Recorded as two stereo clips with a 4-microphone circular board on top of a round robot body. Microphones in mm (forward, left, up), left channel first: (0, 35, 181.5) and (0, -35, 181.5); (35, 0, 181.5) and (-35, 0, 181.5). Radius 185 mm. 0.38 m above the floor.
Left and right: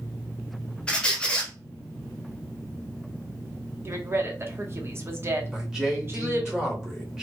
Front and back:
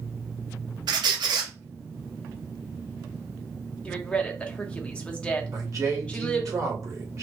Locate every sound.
0.9 s a squeak: 165° left, 0.6 m
3.9 s a woman speaking: 65° right, 1.0 m
5.5 s a man speaking: 170° right, 1.6 m